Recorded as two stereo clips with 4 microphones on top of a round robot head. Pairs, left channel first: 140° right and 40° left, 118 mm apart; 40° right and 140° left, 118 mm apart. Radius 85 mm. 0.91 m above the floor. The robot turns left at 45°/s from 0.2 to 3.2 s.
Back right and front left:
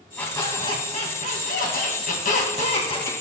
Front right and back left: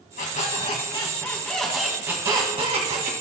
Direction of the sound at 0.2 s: 65° right.